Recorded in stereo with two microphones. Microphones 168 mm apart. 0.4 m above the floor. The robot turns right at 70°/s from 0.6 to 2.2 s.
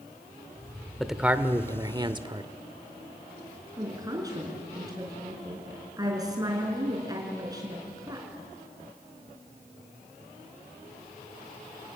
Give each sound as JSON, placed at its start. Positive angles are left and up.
{"t": 1.0, "sound": "a man speaking", "side_deg": 0, "distance_m": 0.8}
{"t": 3.8, "sound": "a woman speaking", "side_deg": -20, "distance_m": 5.5}